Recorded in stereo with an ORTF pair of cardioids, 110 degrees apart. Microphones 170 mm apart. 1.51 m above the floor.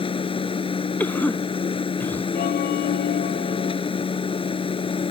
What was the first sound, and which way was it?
A machine running, 35° left.